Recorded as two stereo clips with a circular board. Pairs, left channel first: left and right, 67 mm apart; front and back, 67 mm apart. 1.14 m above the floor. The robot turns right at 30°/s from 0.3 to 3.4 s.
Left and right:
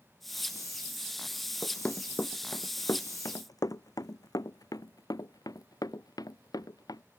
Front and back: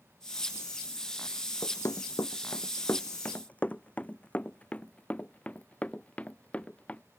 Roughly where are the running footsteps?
Ahead.